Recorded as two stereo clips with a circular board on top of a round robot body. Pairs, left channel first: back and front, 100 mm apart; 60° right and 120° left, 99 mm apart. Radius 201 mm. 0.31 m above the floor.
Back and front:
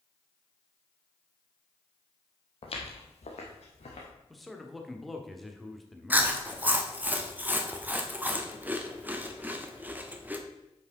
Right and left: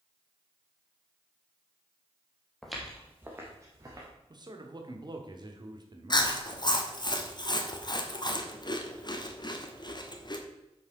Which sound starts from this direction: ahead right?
Chewing, at 6.1 s.